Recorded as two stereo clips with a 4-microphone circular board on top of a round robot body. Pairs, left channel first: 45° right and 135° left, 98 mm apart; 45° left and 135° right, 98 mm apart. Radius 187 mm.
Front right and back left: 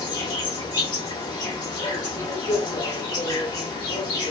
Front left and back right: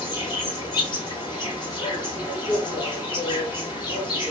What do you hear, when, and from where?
0.0 s an insect: 5° left, 3 m